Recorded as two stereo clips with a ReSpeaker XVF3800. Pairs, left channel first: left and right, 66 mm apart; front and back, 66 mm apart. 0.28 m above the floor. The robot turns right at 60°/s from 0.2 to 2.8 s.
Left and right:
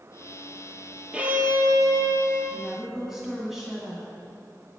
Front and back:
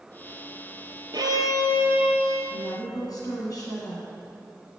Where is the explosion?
I don't hear an explosion.